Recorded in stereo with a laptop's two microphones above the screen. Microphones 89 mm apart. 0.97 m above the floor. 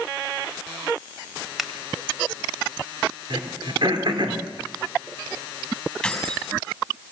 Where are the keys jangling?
5° left (ahead or behind), 5.5 m.